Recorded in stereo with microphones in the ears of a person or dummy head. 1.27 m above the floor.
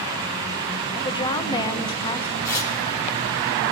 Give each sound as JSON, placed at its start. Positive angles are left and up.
{"t": 0.9, "sound": "a woman speaking", "side_deg": 20, "distance_m": 0.7}
{"t": 2.5, "sound": "tearing paper", "side_deg": 15, "distance_m": 1.1}